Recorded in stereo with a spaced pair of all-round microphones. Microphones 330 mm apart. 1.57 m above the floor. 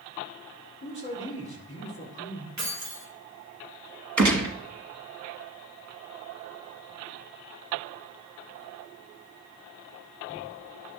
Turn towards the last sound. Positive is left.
turn(degrees=-60)  # may be behind; listen again after turning